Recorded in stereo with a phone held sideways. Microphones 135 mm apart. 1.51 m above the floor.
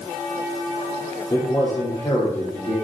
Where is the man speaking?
40° left (ahead or behind), 3 m.